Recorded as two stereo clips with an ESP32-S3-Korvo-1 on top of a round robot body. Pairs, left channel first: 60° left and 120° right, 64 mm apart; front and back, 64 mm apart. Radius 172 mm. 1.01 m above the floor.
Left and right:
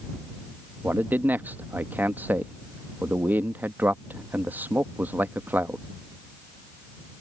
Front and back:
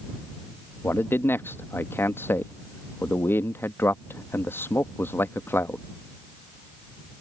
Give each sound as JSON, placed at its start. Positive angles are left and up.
{"t": 0.8, "sound": "a man speaking", "azimuth_deg": -55}